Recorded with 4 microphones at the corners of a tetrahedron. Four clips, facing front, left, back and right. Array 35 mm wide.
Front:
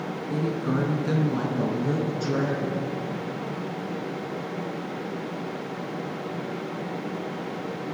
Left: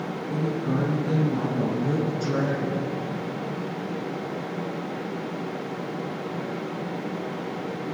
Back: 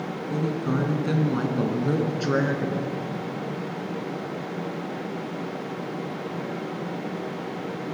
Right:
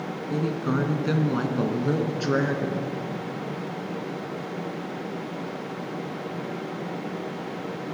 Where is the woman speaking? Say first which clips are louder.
Right 1 dB, even; 75° right, 2 m; by 2.9 s 140° right, 3 m.